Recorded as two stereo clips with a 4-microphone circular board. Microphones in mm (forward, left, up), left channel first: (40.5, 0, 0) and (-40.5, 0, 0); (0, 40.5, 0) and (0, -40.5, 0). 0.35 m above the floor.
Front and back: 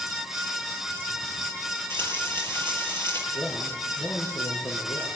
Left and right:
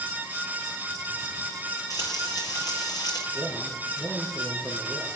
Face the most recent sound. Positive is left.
turn(degrees=-10)